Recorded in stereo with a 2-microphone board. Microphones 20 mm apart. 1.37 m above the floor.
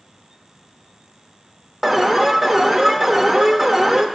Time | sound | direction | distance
1.8 | an alarm | 5° right (ahead or behind) | 0.8 m